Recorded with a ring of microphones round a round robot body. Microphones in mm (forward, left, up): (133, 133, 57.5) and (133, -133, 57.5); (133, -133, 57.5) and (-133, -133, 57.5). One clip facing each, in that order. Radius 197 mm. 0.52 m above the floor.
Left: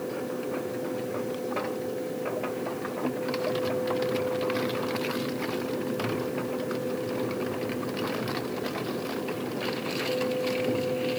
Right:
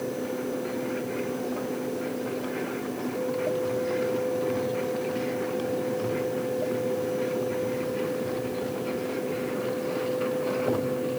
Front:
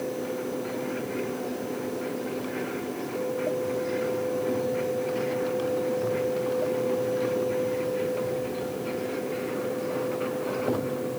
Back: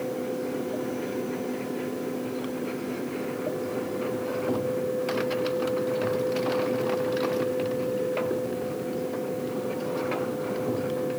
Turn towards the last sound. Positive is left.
No sound to turn to.